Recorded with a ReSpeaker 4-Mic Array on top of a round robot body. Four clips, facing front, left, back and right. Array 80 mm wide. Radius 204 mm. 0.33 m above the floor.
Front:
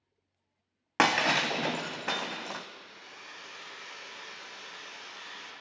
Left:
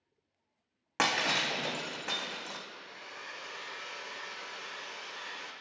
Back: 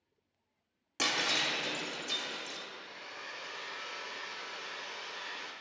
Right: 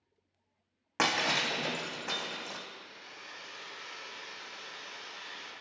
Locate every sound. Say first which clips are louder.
1.0 s breaking glass: even, front 9 dB; straight ahead, 0.7 m
2.7 s a hair dryer: left 2 dB, back 2 dB; 125° left, 2 m